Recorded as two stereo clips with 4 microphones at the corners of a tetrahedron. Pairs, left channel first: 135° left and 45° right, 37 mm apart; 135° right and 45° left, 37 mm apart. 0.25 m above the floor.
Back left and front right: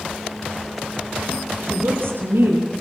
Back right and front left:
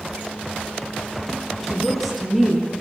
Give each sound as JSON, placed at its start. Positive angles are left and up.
{"t": 1.6, "sound": "a woman speaking", "azimuth_deg": -45, "distance_m": 7.0}